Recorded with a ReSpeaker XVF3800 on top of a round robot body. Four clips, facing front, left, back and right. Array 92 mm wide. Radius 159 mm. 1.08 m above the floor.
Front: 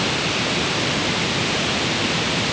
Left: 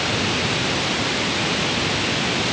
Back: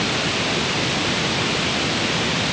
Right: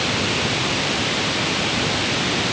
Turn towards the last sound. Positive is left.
No sound to turn to.